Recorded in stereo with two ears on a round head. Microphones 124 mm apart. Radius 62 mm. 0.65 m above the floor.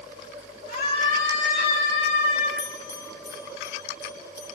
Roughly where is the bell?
Left.